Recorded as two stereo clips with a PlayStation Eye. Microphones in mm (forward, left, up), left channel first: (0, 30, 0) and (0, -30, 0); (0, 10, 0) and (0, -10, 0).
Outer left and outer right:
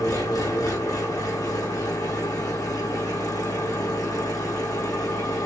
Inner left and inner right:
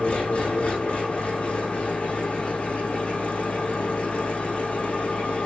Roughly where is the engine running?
Left.